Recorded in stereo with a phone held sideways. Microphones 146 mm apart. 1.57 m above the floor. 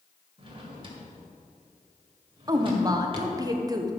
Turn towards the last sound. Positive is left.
turn(degrees=-25)  # may be behind; listen again after turning